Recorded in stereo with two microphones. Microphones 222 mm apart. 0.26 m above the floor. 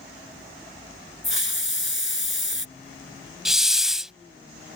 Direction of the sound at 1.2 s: 60° left (ahead or behind).